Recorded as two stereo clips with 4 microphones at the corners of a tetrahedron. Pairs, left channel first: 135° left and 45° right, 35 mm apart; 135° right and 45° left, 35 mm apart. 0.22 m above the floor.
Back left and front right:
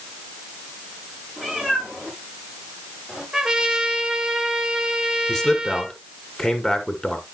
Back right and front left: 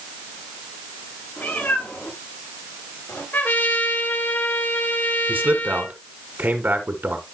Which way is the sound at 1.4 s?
115° right.